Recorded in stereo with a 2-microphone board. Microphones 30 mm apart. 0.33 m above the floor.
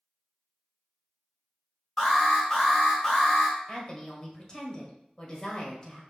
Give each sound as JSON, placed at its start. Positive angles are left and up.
{"t": 2.0, "sound": "an alarm", "side_deg": 10, "distance_m": 2.0}
{"t": 3.7, "sound": "a woman speaking", "side_deg": 30, "distance_m": 1.3}